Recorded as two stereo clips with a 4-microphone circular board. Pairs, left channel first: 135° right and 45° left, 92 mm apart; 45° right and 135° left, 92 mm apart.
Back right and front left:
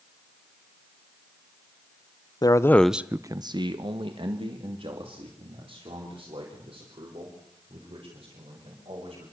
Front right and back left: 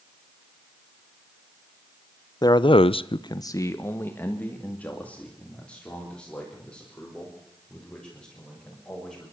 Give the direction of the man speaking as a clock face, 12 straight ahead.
3 o'clock.